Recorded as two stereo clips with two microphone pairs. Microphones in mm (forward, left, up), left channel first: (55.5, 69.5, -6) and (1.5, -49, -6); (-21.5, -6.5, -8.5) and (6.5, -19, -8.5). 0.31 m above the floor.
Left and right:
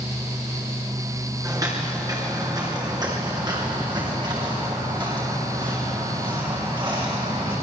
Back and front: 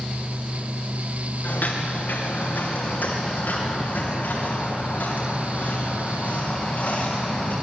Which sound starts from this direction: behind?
Footsteps, at 1.4 s.